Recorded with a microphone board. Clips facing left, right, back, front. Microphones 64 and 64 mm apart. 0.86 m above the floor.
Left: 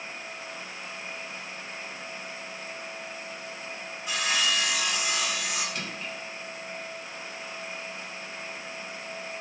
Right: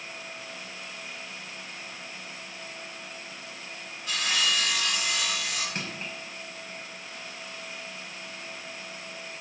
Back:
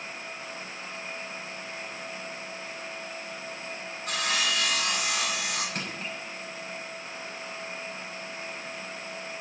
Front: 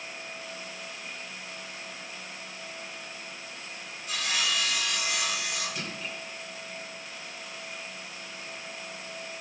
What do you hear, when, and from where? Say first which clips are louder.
4.1 s sawing: left 1 dB, back 2 dB; 165° left, 6 m
5.8 s crushing: even, back 2 dB; 145° right, 6 m